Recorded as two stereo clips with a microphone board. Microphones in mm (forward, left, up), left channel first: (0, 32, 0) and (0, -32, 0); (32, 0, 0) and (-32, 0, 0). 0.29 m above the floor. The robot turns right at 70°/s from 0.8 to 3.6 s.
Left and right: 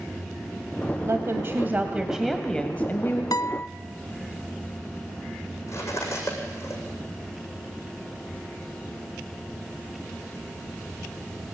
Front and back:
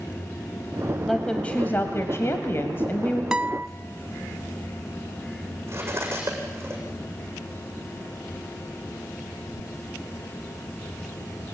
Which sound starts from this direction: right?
A woman speaking, at 1.0 s.